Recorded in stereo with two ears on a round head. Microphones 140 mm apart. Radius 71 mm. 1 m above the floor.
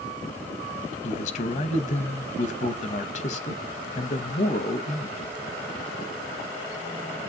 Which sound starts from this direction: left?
A man speaking, at 1.0 s.